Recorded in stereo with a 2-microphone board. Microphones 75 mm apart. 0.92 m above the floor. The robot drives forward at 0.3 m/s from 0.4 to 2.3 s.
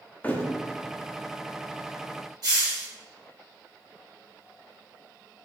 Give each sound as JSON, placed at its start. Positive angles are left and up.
{"t": 0.2, "sound": "a thud", "side_deg": 20, "distance_m": 0.5}
{"t": 2.4, "sound": "a hiss", "side_deg": -60, "distance_m": 1.9}